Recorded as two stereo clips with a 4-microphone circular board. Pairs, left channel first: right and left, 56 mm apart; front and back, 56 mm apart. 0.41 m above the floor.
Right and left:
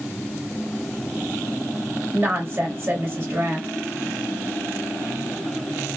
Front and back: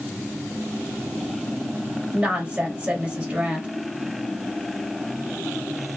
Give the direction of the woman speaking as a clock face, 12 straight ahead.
8 o'clock.